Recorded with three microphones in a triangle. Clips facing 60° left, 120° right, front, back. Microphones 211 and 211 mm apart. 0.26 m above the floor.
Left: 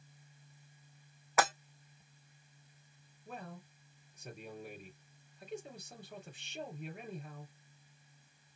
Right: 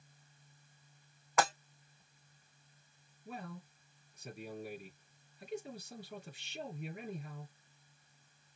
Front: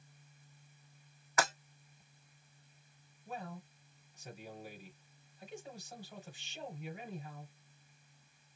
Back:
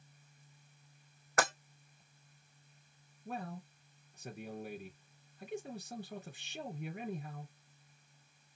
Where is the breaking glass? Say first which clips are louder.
Even, back 1 dB; 145° left, 3.5 m.